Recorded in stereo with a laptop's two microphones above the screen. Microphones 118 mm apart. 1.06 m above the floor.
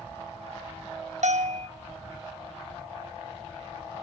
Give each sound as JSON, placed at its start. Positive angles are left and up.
{"t": 1.2, "sound": "a bell", "side_deg": -80, "distance_m": 0.8}